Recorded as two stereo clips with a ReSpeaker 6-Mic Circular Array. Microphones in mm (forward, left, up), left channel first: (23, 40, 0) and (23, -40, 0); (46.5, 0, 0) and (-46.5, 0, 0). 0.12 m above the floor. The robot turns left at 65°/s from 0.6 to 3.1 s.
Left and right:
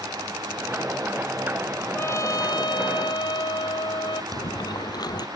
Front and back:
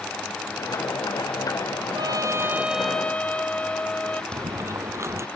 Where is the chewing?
120° left.